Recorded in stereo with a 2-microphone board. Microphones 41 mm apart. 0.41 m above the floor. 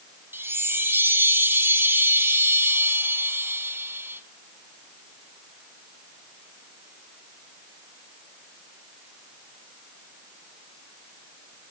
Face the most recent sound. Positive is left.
turn(degrees=-60)  # may be behind; listen again after turning